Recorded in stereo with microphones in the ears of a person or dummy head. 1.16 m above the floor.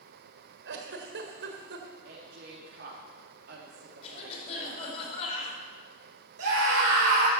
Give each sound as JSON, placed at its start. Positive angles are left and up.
{"t": 0.7, "sound": "a giggle", "side_deg": -70, "distance_m": 1.7}
{"t": 2.0, "sound": "a woman speaking", "side_deg": -55, "distance_m": 3.0}
{"t": 4.0, "sound": "a cough", "side_deg": 40, "distance_m": 5.0}
{"t": 6.4, "sound": "a scream", "side_deg": -65, "distance_m": 4.5}